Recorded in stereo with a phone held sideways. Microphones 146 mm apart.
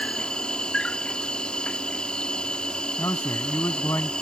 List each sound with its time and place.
0.0 s an insect: 5° left (ahead or behind)
3.0 s a man speaking: 20° left (ahead or behind)